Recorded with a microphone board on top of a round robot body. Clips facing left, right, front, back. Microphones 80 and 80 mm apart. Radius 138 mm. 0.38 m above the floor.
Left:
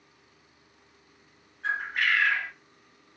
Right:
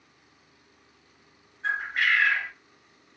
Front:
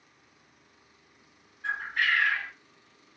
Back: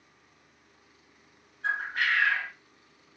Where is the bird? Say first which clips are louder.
Right 1 dB, even; straight behind, 2 m.